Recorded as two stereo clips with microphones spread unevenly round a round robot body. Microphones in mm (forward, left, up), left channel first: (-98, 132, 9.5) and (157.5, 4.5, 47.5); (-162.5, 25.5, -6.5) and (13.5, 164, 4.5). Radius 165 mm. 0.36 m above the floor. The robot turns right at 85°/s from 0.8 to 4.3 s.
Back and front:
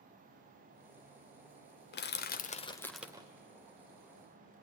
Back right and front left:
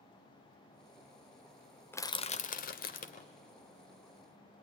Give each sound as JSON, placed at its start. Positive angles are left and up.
{"t": 1.9, "sound": "crushing", "azimuth_deg": 145, "distance_m": 0.7}